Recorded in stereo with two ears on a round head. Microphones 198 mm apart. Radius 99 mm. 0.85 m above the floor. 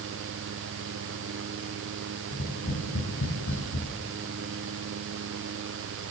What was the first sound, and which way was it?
Tapping, 50° left (ahead or behind).